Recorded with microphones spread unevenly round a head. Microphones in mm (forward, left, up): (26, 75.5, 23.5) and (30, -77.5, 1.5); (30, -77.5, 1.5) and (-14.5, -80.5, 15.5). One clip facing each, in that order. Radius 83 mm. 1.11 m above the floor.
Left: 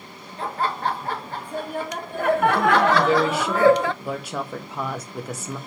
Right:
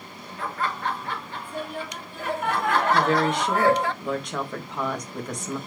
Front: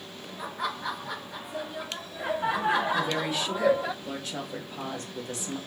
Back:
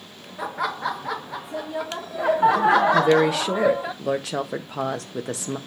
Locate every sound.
0.4 s laughter: 160° left, 2 m; by 3.9 s 85° left, 0.8 m
2.9 s a woman speaking: straight behind, 1.7 m